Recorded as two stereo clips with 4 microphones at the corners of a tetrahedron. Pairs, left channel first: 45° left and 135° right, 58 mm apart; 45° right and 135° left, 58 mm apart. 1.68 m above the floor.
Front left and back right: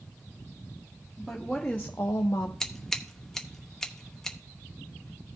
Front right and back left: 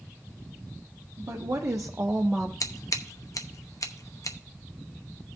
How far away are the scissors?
About 0.8 m.